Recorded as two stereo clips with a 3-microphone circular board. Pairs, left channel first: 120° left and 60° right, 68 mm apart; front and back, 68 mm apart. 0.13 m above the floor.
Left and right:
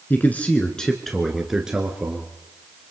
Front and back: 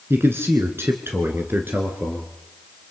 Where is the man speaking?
160° left, 2.0 m; by 2.3 s 125° right, 2.5 m.